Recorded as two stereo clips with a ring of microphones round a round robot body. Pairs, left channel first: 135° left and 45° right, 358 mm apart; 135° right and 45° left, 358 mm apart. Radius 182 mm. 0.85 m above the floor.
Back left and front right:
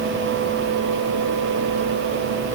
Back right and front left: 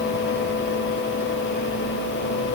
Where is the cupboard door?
I don't hear a cupboard door.